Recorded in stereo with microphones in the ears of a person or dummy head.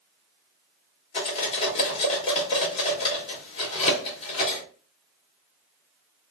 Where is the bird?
I don't hear a bird.